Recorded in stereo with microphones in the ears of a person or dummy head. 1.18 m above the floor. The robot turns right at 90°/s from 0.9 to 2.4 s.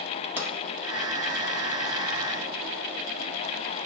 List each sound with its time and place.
0.4 s a pop: 10° right (ahead or behind), 1.1 m